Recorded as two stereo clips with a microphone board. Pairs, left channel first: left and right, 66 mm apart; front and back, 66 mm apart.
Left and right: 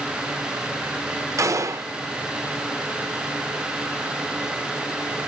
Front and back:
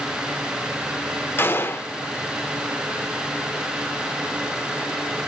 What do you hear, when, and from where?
1.4 s a gunshot: 55° right, 0.6 m